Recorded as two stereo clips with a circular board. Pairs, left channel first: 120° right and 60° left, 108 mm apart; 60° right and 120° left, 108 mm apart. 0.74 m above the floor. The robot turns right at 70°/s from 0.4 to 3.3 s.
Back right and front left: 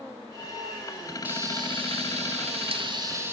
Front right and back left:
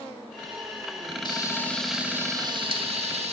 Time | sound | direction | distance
1.2 | frying | 15° right | 1.7 m